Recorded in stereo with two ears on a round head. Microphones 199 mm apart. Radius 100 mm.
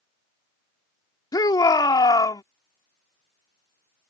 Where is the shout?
15° left (ahead or behind).